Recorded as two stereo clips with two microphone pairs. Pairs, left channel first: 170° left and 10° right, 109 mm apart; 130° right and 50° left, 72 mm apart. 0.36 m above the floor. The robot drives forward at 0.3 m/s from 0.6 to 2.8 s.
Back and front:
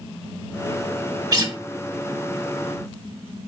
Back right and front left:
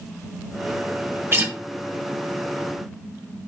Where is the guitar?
20° left, 1.6 m.